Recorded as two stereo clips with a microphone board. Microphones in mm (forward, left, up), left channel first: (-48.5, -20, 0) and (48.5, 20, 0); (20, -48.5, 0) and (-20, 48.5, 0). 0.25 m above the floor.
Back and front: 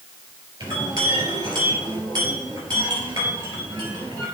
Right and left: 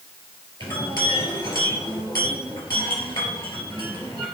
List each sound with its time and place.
0.6 s a clink: 25° right, 4 m